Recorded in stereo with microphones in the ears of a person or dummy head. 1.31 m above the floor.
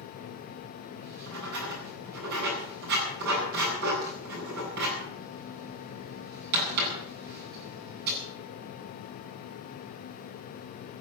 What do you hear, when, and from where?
1.0 s writing: 55° right (ahead or behind), 9 m